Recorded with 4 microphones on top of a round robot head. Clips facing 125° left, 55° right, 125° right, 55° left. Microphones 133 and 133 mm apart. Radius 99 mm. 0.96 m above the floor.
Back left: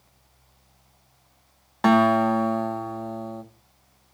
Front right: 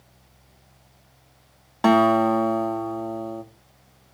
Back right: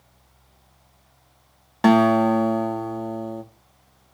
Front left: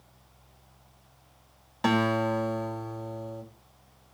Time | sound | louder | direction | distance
1.8 | a guitar | front right 1 dB, back right 10 dB | 130° right | 1.6 m